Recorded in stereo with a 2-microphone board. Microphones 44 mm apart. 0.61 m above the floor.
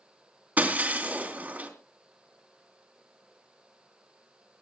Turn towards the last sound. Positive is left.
turn(degrees=-35)  # may be behind; listen again after turning